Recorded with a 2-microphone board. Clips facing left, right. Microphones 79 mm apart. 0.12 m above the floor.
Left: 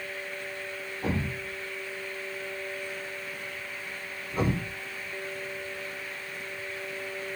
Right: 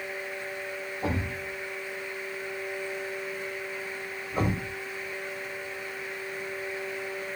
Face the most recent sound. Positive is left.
turn(degrees=-20)  # may be behind; listen again after turning